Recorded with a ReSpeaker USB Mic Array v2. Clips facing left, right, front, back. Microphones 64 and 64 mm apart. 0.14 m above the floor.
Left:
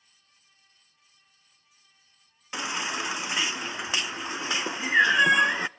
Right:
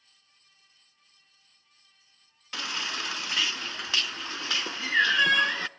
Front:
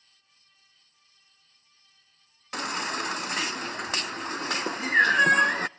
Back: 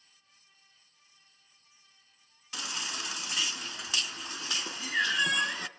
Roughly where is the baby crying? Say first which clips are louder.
Left 3 dB, front 8 dB; ahead left.